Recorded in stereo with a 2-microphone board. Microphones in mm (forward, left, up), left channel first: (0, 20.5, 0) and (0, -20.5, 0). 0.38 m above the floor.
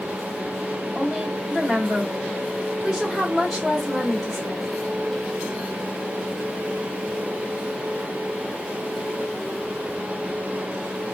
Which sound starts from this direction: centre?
A woman speaking, at 0.9 s.